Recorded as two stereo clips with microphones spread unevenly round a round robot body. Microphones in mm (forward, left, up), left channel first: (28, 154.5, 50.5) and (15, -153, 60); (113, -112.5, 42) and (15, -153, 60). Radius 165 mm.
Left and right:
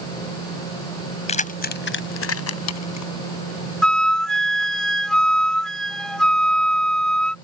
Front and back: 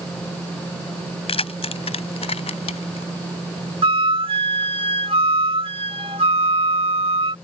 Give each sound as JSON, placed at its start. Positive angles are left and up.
{"t": 1.3, "sound": "keys jangling", "azimuth_deg": 20}
{"t": 3.8, "sound": "a flute", "azimuth_deg": 175}